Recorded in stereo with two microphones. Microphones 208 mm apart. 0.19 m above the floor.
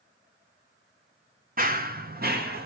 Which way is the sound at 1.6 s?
40° right (ahead or behind).